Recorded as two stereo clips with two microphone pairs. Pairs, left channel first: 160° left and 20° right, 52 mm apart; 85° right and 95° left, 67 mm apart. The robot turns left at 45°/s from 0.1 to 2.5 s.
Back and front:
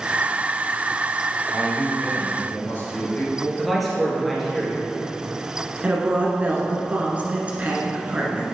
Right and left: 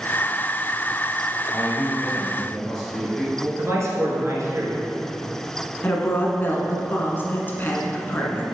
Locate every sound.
1.5 s a man speaking: 120° right, 2.5 m; by 3.5 s 165° right, 2.5 m
3.6 s a man speaking: 70° left, 2.5 m
5.8 s a woman speaking: 60° right, 1.5 m